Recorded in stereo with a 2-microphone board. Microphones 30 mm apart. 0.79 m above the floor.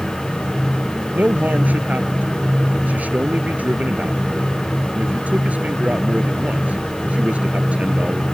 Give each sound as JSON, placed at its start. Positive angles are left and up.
{"t": 1.1, "sound": "a man speaking", "side_deg": -70}